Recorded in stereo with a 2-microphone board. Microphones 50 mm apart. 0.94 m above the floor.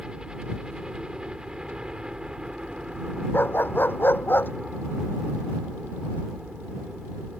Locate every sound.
0.0 s a helicopter: 15° right (ahead or behind)
3.3 s a dog barking: 45° left (ahead or behind)